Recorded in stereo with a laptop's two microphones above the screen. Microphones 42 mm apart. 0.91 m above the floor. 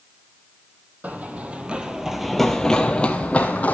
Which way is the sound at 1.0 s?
40° right (ahead or behind).